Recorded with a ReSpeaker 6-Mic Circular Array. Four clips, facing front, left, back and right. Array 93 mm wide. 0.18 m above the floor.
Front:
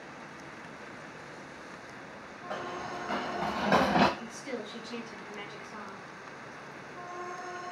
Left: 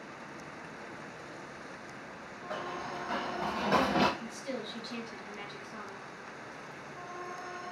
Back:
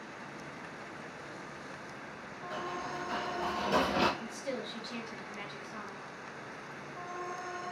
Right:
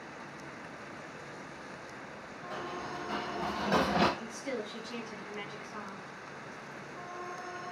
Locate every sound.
2.5 s running footsteps: 35° left, 1.6 m; by 4.1 s 5° left, 1.0 m
4.2 s a woman speaking: 55° right, 1.0 m